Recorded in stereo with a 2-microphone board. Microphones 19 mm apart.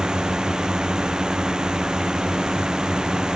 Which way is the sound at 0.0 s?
40° right (ahead or behind).